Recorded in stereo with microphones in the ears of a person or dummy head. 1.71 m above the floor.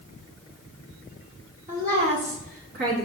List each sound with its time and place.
1.7 s a woman speaking: 15° right (ahead or behind), 0.6 m; by 3.1 s 55° right (ahead or behind), 1.0 m